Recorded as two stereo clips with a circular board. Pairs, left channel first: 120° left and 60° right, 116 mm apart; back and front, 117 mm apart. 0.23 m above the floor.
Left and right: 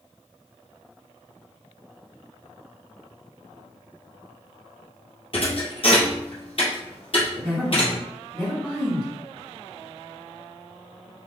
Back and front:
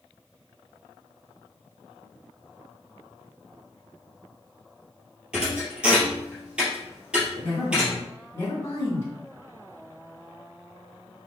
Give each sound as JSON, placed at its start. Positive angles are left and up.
{"t": 5.3, "sound": "a thud", "azimuth_deg": 80, "distance_m": 1.8}
{"t": 7.3, "sound": "a woman speaking", "azimuth_deg": -140, "distance_m": 1.2}